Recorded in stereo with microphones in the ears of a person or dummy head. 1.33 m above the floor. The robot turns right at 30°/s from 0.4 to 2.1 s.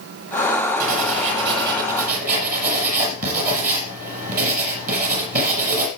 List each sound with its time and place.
0.8 s writing: 85° right, 6.5 m; by 5.9 s 45° right, 6.5 m